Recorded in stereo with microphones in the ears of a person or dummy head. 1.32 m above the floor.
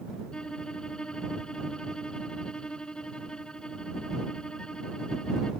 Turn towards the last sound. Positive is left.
turn(degrees=10)  # may be behind; listen again after turning